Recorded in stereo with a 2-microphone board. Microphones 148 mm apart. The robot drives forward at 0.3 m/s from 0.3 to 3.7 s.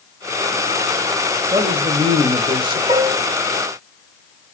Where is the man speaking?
35° right (ahead or behind), 1.2 m; by 2.8 s 30° right (ahead or behind), 1.4 m.